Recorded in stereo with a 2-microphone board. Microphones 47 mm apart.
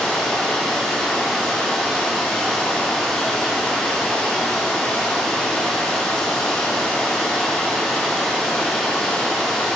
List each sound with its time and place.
0.0 s running water: 15° left (ahead or behind), 2 m